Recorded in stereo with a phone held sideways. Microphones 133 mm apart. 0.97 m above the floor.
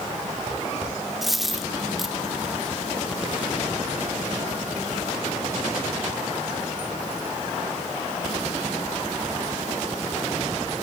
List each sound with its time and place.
1.2 s a dropped coin: centre (ahead or behind), 0.7 m